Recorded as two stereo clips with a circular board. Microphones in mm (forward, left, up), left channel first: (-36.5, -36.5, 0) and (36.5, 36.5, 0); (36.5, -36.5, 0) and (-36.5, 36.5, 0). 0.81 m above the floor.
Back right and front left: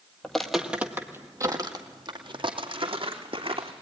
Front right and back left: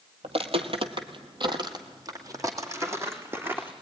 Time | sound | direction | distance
0.2 | footsteps | 140° left | 1.6 m